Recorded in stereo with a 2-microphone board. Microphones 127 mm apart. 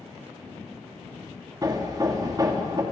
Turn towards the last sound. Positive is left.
turn(degrees=-30)  # may be behind; listen again after turning